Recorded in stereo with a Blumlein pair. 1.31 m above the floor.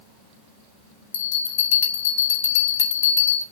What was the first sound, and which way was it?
A bell, 60° left.